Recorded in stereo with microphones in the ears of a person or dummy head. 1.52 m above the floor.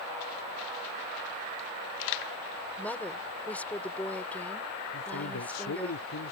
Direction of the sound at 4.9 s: 85° left.